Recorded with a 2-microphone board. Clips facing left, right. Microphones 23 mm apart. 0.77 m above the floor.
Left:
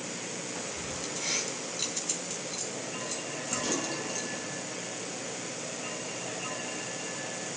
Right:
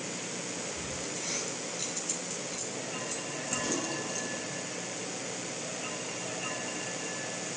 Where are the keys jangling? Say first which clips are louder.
Left 1 dB; 35° left (ahead or behind), 5 m; by 4.5 s 10° left (ahead or behind), 5.5 m.